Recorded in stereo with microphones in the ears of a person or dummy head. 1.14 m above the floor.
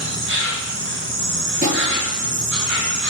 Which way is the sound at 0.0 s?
65° right (ahead or behind).